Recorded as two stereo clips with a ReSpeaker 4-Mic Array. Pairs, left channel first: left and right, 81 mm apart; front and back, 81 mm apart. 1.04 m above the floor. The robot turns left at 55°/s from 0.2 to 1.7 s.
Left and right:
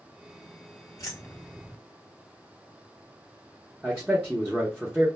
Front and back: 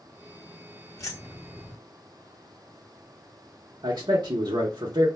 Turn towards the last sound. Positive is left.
turn(degrees=-175)